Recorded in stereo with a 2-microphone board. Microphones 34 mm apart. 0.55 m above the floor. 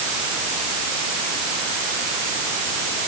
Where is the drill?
I don't hear a drill.